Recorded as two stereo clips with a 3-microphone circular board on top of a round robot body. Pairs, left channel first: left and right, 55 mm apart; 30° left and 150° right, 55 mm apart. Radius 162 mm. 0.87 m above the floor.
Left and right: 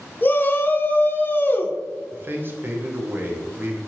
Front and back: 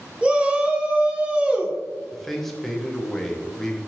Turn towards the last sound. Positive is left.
turn(degrees=-55)